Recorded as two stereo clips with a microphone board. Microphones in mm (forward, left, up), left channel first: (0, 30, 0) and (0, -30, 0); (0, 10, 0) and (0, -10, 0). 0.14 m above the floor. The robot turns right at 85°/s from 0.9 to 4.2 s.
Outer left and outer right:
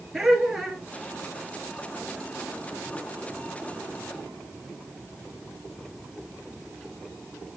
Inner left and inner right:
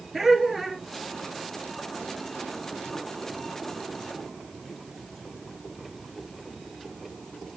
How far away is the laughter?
About 3 m.